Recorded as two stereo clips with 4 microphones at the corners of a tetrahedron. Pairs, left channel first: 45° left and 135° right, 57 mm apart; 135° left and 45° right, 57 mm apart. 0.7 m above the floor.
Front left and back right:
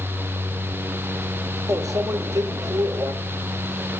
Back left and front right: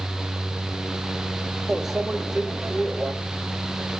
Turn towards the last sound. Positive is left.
turn(degrees=-130)